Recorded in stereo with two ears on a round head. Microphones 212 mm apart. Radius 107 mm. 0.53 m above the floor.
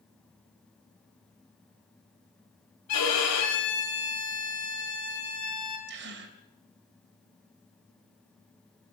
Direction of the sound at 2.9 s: 85° left.